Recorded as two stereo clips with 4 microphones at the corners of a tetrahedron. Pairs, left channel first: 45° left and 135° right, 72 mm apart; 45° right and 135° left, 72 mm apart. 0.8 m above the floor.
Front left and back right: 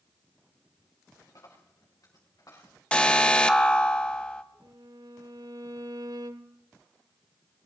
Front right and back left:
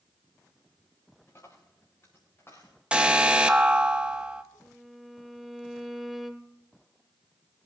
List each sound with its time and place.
1.3 s a dropped coin: 10° left, 5 m
2.9 s an alarm: 95° left, 0.9 m
4.6 s a violin: 140° right, 0.9 m